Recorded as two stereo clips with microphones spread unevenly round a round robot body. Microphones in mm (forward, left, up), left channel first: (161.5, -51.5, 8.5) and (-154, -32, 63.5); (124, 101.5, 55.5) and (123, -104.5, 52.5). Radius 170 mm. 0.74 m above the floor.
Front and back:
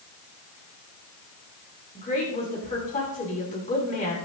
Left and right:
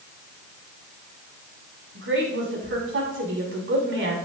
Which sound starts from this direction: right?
A woman speaking, at 1.9 s.